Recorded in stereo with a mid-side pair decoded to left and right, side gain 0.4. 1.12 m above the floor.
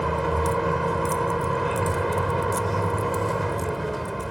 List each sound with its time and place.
0.0 s a vehicle: 10° right